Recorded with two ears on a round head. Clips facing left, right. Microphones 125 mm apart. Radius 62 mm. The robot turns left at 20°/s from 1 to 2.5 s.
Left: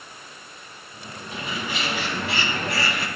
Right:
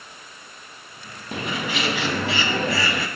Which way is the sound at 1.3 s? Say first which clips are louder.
Right 4 dB; 45° right (ahead or behind).